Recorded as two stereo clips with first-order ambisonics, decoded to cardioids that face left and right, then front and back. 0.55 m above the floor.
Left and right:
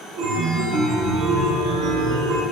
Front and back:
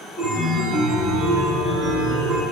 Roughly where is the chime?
Right.